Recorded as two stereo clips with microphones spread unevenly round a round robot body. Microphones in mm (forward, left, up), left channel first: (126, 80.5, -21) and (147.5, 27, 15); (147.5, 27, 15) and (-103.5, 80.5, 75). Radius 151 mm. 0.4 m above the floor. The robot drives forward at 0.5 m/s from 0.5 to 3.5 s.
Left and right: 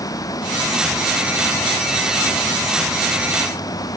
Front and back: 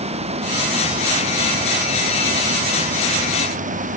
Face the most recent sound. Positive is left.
turn(degrees=110)